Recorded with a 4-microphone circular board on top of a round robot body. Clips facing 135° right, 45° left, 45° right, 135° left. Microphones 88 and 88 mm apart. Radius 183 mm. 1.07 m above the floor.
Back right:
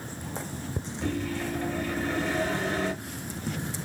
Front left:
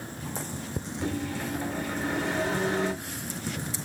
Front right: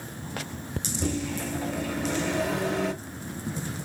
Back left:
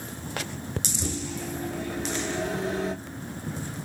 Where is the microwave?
30° right, 0.8 m.